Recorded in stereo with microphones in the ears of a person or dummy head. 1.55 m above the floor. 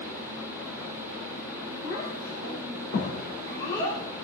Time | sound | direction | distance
1.8 | a child speaking | 65° left (ahead or behind) | 4 m